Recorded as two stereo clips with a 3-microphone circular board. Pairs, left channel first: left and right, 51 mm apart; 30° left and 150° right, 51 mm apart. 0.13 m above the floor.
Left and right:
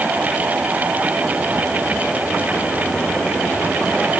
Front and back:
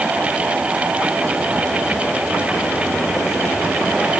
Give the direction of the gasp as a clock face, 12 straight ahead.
No gasp in this recording.